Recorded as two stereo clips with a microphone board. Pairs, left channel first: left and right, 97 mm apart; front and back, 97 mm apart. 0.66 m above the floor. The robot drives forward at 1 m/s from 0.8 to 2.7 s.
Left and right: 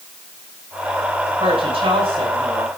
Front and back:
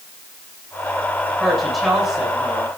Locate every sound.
1.4 s a woman speaking: 85° right, 6 m; by 2.7 s 100° right, 6.5 m